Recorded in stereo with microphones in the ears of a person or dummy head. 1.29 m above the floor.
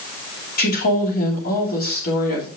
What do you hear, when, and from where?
0.6 s a woman speaking: 45° left (ahead or behind), 2.5 m